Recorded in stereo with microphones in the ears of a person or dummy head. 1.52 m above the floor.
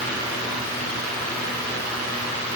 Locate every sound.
Only background noise.